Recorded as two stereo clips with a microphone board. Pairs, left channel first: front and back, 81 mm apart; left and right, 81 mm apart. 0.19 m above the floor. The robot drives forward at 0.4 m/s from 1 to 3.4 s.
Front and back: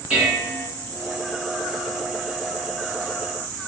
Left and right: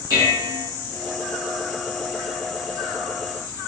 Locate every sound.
0.1 s dishes clattering: 110° right, 1.6 m